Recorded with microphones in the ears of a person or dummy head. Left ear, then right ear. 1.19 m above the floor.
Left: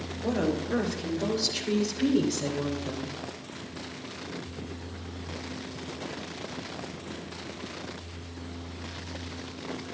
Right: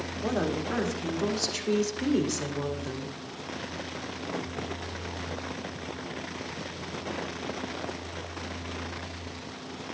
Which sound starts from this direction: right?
A woman speaking, at 0.2 s.